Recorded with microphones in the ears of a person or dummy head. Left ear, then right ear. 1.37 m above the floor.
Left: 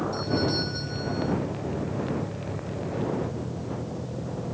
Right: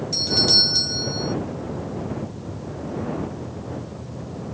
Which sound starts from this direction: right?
A doorbell, at 0.1 s.